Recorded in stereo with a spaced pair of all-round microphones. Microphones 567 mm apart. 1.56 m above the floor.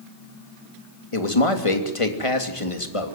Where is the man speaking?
65° left (ahead or behind), 3 m.